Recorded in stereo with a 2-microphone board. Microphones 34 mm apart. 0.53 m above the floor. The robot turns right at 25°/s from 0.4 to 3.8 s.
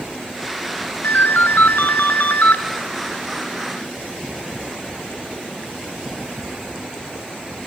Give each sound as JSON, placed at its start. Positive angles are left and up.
{"t": 1.0, "sound": "a ringtone", "azimuth_deg": 85, "distance_m": 2.0}